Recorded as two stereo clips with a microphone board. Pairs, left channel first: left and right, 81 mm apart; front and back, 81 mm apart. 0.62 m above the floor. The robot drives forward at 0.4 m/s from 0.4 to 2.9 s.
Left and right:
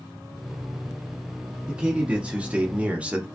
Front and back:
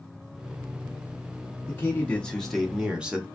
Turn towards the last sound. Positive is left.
turn(degrees=-125)